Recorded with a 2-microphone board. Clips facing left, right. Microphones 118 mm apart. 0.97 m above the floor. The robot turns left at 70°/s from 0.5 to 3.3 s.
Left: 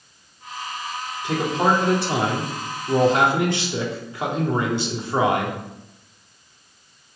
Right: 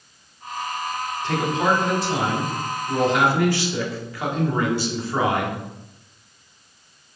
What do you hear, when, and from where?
1.2 s a man speaking: 165° left, 1.8 m; by 5.6 s 25° left, 1.8 m